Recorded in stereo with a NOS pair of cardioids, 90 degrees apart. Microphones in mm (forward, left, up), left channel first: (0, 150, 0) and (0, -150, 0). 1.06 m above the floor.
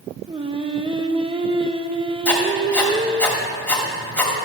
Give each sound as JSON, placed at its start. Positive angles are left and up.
{"t": 0.3, "sound": "singing", "azimuth_deg": -15, "distance_m": 0.8}
{"t": 2.2, "sound": "writing", "azimuth_deg": 5, "distance_m": 3.0}